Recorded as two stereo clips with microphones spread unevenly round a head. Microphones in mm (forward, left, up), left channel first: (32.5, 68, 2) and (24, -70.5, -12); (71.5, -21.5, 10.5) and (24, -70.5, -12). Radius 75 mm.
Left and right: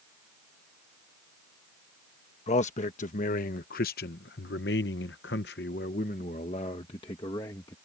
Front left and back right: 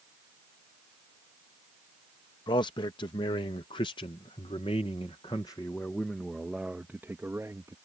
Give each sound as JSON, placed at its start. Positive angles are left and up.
{"t": 2.5, "sound": "a man speaking", "azimuth_deg": 45}